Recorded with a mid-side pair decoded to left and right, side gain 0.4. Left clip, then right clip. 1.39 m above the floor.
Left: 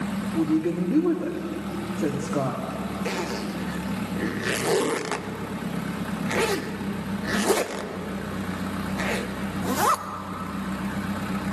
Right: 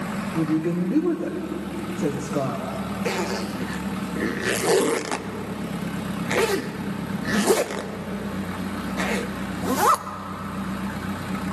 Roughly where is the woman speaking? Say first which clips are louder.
Even; ahead.